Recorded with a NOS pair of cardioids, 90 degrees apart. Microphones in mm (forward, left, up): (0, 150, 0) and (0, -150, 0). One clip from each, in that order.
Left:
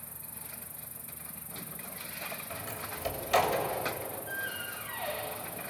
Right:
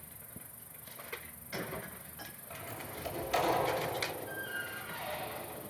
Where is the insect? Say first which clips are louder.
Left 5 dB; 50° left, 1.4 m.